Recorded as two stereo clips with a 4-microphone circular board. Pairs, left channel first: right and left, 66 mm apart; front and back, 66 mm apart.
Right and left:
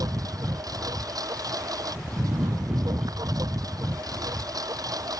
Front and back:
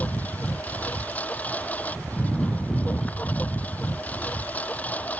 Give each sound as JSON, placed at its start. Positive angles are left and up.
{"t": 0.0, "sound": "a lawn mower", "azimuth_deg": 70}